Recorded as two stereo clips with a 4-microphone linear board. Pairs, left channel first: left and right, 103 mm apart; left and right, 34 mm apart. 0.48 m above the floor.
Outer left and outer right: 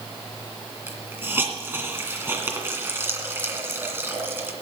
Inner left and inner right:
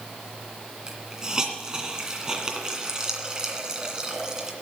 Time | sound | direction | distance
0.9 | a hiss | 25° right (ahead or behind) | 2 m